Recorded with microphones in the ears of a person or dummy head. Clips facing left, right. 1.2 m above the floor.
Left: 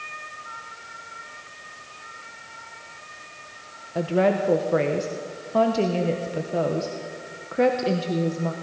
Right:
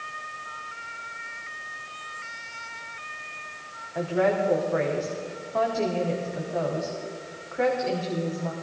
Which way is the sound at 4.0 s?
45° left (ahead or behind).